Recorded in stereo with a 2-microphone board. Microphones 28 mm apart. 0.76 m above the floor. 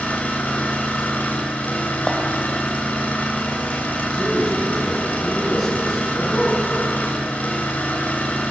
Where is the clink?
30° left (ahead or behind), 3 m.